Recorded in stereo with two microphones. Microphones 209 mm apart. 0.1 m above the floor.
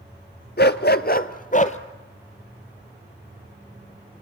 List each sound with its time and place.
0.6 s a dog barking: 50° left (ahead or behind), 0.8 m; by 1.8 s 35° left (ahead or behind), 1.2 m